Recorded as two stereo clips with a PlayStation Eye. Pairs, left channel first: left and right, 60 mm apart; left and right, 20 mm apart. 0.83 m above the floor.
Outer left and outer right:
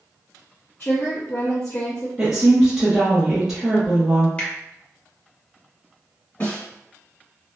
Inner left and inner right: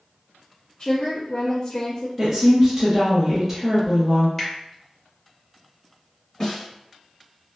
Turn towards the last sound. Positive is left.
turn(degrees=40)  # may be behind; listen again after turning